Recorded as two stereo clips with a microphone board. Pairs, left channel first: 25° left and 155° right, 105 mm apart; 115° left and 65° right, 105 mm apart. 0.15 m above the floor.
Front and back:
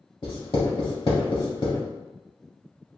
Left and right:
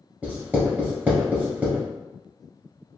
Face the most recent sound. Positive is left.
turn(degrees=0)